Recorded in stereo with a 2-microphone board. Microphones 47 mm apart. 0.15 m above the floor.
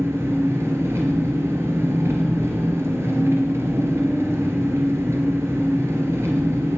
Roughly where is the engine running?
Right.